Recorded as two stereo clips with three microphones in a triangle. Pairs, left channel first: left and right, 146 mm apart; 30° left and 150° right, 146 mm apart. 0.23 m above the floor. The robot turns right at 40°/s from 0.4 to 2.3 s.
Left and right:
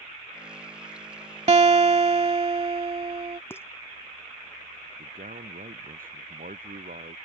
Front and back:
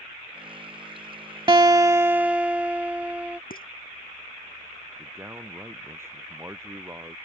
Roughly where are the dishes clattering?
Ahead.